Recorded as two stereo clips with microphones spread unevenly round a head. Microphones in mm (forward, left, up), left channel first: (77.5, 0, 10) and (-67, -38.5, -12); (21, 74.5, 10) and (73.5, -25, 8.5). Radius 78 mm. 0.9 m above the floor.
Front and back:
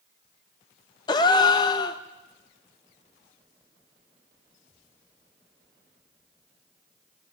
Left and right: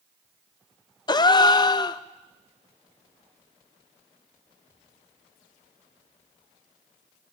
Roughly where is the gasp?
Left.